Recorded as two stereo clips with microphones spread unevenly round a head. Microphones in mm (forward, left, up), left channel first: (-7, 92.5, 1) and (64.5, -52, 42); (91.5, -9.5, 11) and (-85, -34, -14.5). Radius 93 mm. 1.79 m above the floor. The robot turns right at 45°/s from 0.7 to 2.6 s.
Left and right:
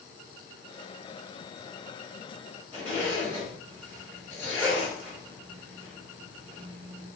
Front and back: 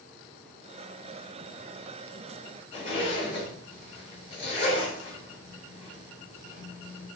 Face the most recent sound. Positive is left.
turn(degrees=25)